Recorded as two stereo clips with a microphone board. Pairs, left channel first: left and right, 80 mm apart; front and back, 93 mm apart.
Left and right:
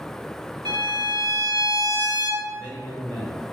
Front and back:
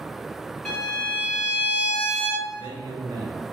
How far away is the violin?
About 1.9 m.